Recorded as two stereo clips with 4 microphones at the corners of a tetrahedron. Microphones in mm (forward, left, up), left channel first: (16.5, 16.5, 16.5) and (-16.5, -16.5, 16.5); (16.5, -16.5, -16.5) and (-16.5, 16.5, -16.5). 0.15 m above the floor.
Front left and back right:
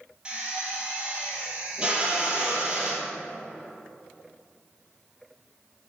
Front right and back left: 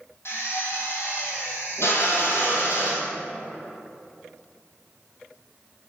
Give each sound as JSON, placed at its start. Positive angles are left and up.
{"t": 0.2, "sound": "a drill", "azimuth_deg": -65, "distance_m": 2.5}